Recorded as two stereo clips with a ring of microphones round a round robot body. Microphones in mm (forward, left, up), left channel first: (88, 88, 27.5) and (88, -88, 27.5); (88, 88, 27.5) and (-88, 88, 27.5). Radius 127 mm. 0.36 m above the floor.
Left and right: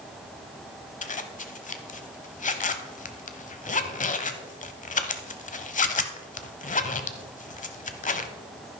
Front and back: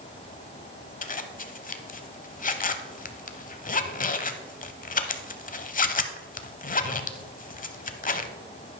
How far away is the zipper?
About 0.9 m.